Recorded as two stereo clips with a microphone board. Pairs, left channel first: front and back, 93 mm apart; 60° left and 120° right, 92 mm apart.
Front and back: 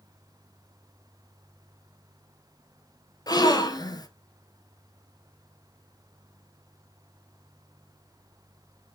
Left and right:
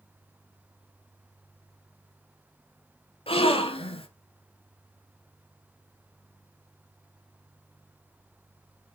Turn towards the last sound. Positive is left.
turn(degrees=45)